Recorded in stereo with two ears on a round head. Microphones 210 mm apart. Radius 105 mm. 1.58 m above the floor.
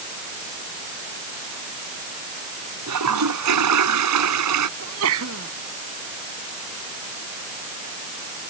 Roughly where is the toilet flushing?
Right.